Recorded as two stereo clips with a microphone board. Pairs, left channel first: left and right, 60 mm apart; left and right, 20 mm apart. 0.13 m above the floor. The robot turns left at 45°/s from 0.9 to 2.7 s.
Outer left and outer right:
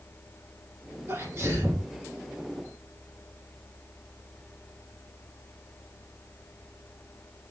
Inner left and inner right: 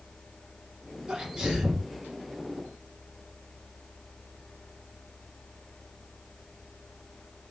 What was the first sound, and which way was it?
A sneeze, 100° right.